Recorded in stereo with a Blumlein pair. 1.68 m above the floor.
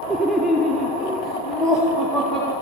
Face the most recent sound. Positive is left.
turn(degrees=10)